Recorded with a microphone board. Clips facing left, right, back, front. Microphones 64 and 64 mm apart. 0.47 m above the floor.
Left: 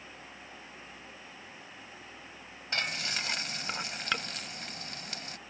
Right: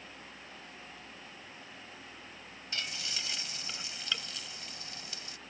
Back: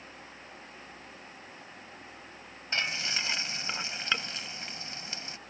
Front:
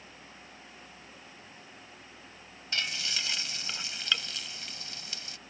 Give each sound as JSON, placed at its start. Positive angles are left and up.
{"t": 2.7, "sound": "frying", "azimuth_deg": 120}